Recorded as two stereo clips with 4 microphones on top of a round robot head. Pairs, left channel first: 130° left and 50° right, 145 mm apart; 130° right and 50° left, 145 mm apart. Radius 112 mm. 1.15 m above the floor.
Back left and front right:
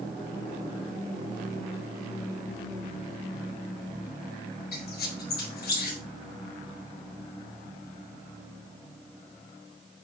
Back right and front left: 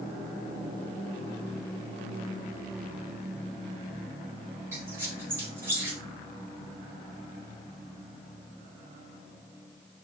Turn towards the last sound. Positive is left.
turn(degrees=125)